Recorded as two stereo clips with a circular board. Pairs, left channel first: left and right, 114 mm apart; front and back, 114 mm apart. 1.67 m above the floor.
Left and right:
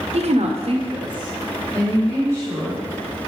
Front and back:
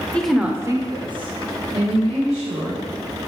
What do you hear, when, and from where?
0.1 s a woman speaking: 80° right, 0.8 m; by 2.8 s 155° right, 3 m